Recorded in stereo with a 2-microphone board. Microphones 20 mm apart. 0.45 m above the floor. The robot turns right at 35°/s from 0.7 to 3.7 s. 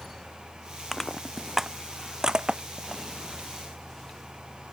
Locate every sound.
0.9 s crushing: 20° left (ahead or behind); by 3.0 s 55° right (ahead or behind)